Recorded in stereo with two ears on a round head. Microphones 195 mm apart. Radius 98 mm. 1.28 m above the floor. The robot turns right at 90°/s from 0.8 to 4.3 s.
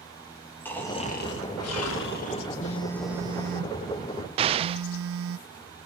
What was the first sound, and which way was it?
Snoring, 10° left.